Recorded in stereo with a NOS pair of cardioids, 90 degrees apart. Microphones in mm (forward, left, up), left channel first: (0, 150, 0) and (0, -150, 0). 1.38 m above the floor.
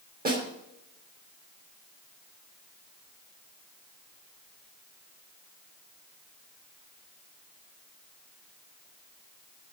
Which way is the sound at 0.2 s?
30° right.